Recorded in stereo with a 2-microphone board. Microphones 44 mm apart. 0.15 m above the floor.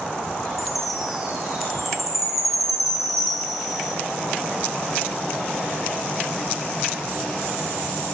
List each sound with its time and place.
0.6 s a chime: 5° right (ahead or behind), 5.5 m